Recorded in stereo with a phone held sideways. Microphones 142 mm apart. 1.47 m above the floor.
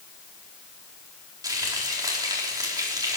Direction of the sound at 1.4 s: 25° right (ahead or behind).